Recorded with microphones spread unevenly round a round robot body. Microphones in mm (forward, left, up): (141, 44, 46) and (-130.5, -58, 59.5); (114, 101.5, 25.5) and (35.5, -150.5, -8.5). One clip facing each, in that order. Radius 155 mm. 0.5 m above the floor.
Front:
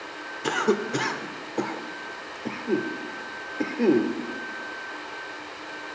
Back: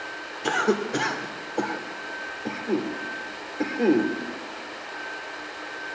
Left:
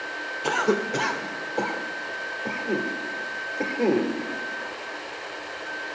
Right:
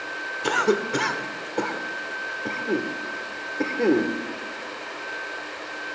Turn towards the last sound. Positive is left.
turn(degrees=-50)